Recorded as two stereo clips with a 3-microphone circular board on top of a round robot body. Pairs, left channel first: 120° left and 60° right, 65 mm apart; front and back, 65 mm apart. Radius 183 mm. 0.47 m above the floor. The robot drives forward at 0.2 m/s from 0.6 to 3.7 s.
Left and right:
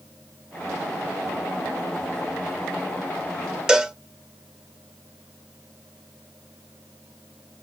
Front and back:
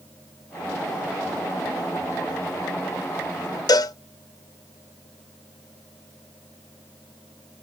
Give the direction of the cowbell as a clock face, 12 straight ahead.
11 o'clock.